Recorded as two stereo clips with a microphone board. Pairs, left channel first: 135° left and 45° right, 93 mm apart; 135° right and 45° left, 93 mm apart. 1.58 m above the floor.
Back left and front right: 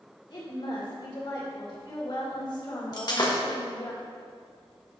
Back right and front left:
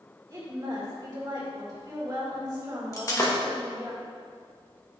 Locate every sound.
0.3 s a woman speaking: 95° left, 2.5 m
2.9 s breaking glass: 170° left, 1.4 m